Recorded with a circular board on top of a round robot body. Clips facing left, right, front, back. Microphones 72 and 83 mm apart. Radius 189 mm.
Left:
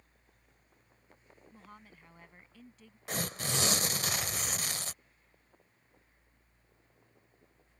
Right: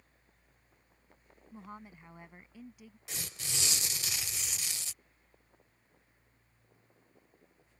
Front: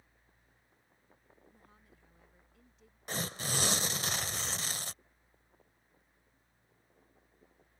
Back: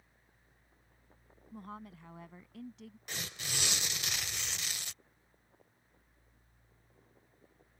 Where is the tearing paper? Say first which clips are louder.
Left 9 dB, front 6 dB; 50° left.